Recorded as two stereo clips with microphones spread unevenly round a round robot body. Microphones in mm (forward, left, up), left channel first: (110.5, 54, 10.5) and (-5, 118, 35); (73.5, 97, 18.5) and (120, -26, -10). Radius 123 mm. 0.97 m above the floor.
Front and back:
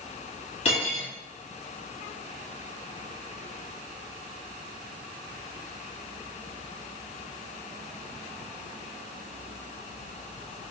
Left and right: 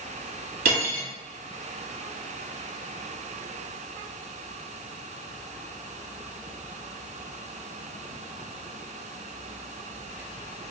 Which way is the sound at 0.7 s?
95° right.